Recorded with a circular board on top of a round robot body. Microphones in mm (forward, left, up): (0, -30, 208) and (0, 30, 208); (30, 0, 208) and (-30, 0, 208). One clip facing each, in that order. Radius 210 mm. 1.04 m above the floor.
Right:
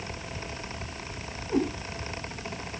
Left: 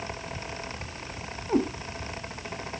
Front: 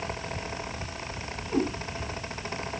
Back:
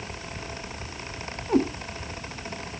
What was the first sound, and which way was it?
A cat meowing, 135° left.